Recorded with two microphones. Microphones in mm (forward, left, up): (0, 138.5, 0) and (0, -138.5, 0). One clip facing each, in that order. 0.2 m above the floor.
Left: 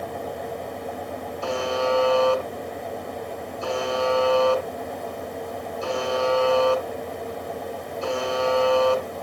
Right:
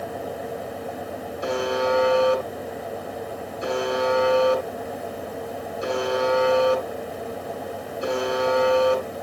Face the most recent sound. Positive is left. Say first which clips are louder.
# right 1 dB
turn(degrees=-20)  # may be behind; listen again after turning